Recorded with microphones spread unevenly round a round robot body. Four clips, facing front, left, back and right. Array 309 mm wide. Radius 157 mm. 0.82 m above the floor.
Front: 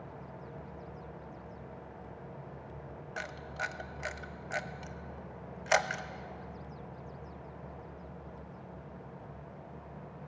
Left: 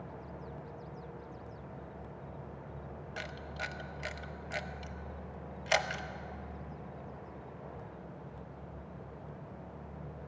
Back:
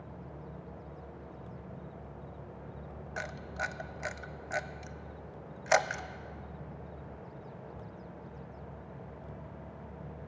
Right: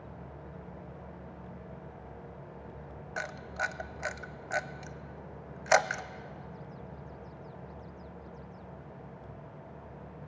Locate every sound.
3.2 s a camera shutter: 115° right, 0.7 m